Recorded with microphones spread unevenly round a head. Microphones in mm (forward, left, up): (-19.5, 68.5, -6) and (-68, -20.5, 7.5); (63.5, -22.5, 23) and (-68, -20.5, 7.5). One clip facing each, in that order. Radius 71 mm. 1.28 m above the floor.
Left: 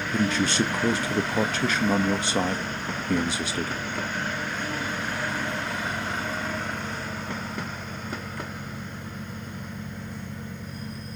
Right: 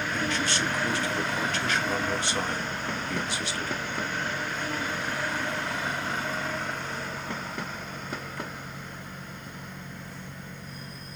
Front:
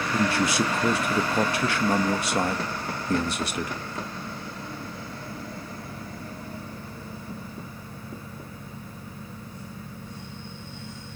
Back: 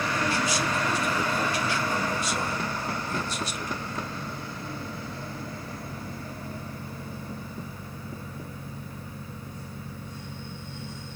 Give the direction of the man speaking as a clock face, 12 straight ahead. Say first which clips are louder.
Left 8 dB, front 7 dB; 11 o'clock.